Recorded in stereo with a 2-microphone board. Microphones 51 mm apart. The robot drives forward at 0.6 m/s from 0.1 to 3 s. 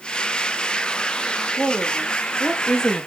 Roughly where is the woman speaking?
Centre.